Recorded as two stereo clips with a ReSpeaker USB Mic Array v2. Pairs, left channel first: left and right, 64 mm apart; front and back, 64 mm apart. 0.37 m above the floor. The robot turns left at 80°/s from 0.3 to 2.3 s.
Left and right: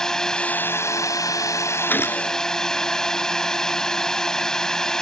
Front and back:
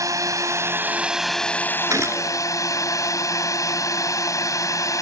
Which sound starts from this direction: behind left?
A gunshot, at 1.9 s.